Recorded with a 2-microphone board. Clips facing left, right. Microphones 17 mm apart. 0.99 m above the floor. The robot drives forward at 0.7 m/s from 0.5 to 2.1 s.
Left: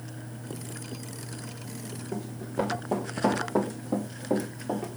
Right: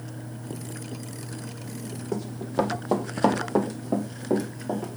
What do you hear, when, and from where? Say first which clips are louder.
2.1 s running footsteps: right 5 dB; 60° right (ahead or behind), 2.0 m; by 5.0 s 10° right (ahead or behind), 2.5 m